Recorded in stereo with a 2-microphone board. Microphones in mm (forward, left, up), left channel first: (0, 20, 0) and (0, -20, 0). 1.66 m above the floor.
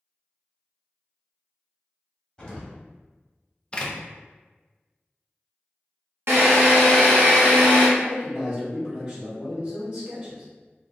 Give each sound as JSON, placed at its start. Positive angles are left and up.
{"t": 2.4, "sound": "an explosion", "side_deg": 20, "distance_m": 1.4}
{"t": 3.7, "sound": "a door slam", "side_deg": 25, "distance_m": 0.6}
{"t": 6.3, "sound": "a drill", "side_deg": -75, "distance_m": 1.4}
{"t": 8.0, "sound": "a man speaking", "side_deg": -50, "distance_m": 1.7}